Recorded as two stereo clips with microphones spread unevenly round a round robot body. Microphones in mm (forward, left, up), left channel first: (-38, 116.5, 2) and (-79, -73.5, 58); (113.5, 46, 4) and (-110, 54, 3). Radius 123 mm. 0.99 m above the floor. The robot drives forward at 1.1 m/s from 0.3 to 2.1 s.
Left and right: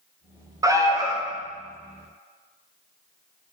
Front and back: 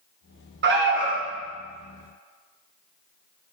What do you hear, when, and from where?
0.6 s an alarm: 175° left, 1.3 m